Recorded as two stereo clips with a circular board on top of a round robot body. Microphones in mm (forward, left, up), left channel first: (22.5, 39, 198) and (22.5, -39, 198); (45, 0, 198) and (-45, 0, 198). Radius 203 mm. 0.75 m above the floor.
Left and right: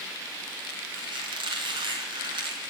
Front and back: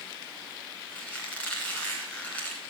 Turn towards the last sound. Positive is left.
turn(degrees=-75)